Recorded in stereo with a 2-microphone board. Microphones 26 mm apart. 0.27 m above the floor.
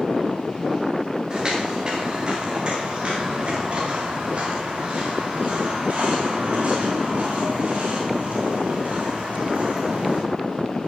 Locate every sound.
1.3 s footsteps: 30° right (ahead or behind), 6.5 m; by 10.2 s 60° right (ahead or behind), 11 m